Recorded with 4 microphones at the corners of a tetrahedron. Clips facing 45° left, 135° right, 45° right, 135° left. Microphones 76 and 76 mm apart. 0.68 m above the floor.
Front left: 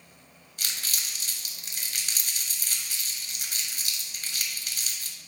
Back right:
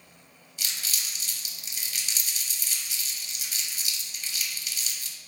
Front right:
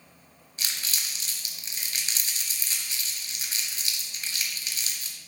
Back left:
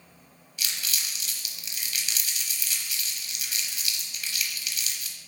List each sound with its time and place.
0.6 s crumpling: 10° left, 0.9 m